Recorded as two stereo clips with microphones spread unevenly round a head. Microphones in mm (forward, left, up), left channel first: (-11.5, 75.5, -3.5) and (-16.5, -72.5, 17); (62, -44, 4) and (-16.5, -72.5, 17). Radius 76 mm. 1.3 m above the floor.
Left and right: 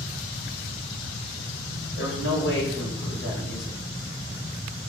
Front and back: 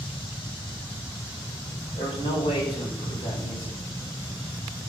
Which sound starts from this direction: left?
A man speaking, at 2.0 s.